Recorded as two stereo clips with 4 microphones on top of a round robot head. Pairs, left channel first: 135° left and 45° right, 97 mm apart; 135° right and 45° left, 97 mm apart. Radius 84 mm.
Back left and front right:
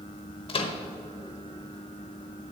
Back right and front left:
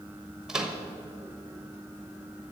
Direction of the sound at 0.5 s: 130° left.